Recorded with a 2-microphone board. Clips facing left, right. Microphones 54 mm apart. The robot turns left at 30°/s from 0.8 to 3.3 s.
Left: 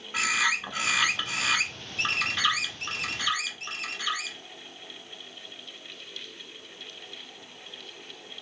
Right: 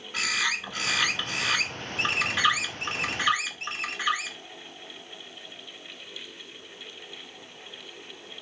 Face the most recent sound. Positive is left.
turn(degrees=-50)